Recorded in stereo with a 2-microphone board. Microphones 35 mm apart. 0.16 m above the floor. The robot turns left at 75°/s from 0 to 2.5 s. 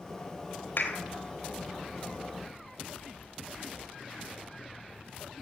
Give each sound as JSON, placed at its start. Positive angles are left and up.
{"t": 0.8, "sound": "a clap", "side_deg": 75, "distance_m": 3.0}